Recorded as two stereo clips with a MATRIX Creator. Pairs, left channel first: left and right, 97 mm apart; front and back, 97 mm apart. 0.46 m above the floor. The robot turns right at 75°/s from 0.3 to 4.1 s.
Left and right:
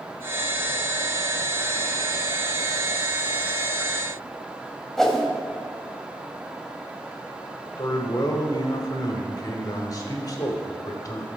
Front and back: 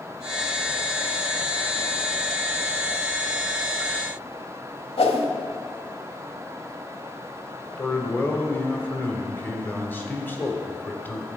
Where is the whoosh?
5° left, 0.8 m.